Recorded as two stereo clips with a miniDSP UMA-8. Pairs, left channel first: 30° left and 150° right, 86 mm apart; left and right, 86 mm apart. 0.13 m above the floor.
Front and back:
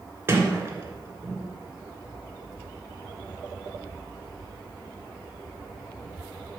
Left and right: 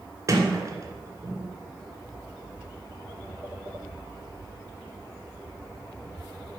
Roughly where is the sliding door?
Right.